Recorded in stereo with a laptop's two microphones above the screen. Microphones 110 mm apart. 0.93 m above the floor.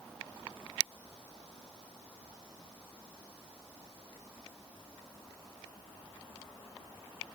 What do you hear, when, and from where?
Only background noise.